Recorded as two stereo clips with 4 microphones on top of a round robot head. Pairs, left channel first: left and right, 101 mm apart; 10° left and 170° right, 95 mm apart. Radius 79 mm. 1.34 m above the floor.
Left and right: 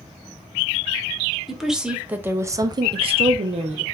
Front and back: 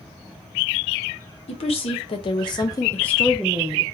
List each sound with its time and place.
1.5 s a woman speaking: straight ahead, 1.0 m; by 3.8 s 105° right, 0.7 m